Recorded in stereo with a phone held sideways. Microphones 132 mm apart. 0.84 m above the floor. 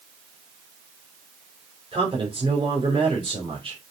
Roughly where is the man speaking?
Right.